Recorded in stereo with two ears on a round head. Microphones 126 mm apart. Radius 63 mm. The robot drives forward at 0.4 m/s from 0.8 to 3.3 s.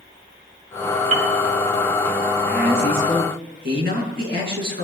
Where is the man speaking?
80° right, 6.5 m.